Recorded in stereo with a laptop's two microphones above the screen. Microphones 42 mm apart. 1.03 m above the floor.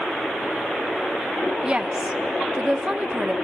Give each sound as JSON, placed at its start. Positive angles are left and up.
{"t": 1.6, "sound": "a woman speaking", "side_deg": -25, "distance_m": 1.0}